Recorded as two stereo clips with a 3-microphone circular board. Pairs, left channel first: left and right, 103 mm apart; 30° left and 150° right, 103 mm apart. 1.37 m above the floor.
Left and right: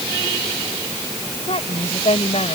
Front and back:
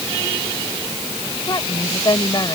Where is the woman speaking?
80° left.